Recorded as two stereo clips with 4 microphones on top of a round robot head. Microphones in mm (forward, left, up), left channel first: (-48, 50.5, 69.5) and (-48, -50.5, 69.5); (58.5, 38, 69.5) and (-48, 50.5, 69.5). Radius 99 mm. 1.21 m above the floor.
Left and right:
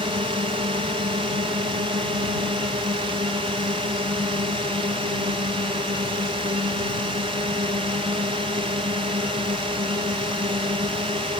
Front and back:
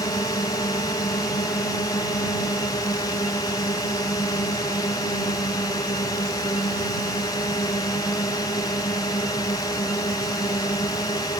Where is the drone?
60° right.